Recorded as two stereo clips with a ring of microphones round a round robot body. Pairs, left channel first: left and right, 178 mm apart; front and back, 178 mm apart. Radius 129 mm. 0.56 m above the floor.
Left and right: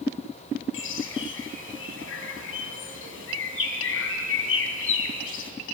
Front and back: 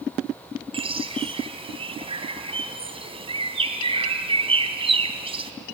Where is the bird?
120° left, 3 m.